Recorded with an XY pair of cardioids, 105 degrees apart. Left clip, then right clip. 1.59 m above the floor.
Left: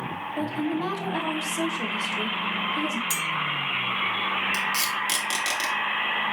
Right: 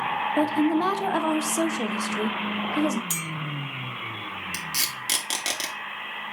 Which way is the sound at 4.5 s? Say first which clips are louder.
Left 4 dB; 30° right.